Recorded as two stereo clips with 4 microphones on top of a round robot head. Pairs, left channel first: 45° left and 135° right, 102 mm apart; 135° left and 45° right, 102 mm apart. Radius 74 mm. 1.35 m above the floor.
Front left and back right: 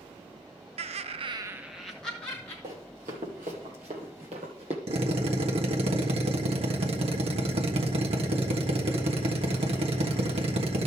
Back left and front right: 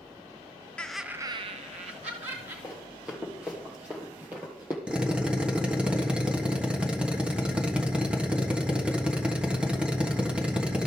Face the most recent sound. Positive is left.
turn(degrees=-125)